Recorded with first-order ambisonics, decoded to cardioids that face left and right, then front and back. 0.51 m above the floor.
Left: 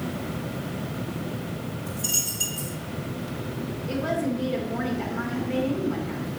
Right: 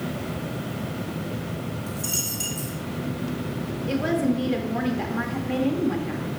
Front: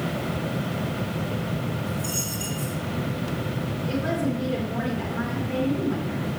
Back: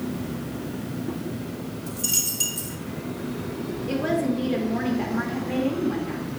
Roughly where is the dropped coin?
Behind.